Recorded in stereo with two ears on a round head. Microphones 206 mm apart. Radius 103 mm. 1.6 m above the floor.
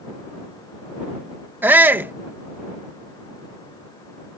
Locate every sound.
1.6 s a shout: 10° right (ahead or behind)